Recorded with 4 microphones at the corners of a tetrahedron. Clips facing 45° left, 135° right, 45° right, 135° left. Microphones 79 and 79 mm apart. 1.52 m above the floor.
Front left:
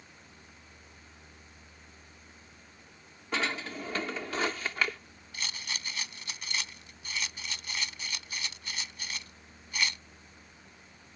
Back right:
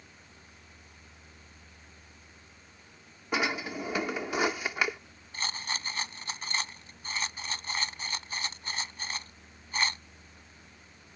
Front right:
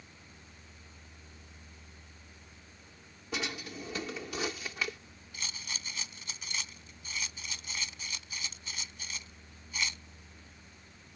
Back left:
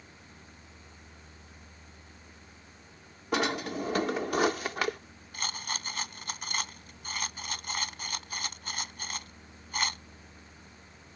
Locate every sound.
3.3 s a drawer: 150° left
5.3 s a rattle: 170° left